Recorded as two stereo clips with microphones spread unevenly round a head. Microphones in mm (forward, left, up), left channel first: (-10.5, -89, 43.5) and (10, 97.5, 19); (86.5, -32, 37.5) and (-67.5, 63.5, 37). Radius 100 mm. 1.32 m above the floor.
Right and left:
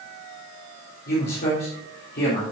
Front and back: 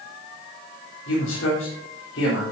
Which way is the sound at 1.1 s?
55° right.